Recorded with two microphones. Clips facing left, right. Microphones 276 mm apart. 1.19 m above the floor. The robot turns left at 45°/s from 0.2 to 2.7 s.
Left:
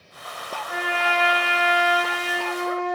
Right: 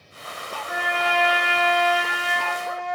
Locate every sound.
0.7 s a trumpet: 45° right, 1.6 m; by 3.0 s 135° right, 1.6 m